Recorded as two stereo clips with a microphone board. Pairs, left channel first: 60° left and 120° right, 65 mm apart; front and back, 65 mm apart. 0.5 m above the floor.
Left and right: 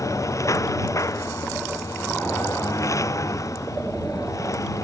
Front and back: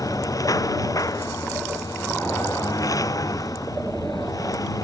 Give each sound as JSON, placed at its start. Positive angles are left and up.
{"t": 0.0, "sound": "a lawn mower", "azimuth_deg": 25}